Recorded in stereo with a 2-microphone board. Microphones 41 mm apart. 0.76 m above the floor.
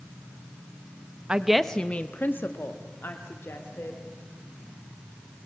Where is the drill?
No drill in this recording.